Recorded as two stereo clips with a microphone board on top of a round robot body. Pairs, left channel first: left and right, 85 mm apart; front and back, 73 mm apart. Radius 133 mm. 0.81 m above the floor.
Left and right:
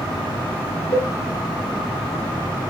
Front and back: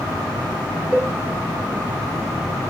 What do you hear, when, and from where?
0.9 s a cowbell: 75° left, 5 m